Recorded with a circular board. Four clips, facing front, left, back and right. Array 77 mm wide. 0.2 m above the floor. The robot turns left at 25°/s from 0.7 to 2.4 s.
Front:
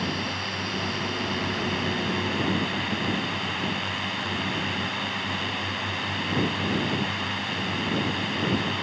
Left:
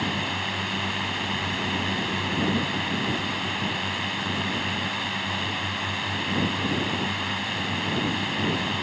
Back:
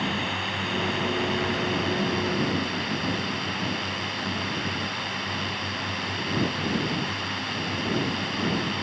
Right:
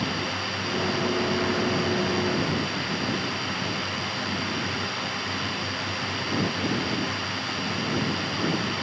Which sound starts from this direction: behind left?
A drone, at 0.0 s.